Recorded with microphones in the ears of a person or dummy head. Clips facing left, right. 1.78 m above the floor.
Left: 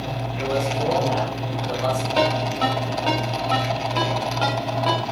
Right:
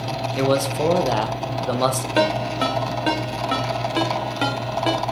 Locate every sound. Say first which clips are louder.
0.4 s a man speaking: right 4 dB; 65° right (ahead or behind), 1.3 m
2.2 s a ringtone: right 3 dB; 20° right (ahead or behind), 2 m